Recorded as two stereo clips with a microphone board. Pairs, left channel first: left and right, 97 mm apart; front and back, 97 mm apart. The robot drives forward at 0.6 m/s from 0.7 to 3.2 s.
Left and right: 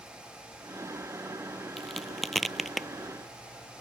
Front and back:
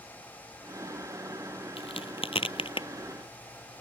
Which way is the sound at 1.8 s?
Straight ahead.